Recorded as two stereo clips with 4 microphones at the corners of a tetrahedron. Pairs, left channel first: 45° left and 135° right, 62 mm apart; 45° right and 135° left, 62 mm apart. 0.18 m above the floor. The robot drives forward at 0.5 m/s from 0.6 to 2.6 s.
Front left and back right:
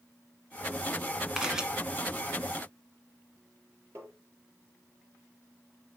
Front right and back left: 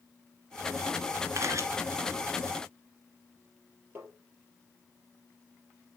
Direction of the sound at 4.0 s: 175° right.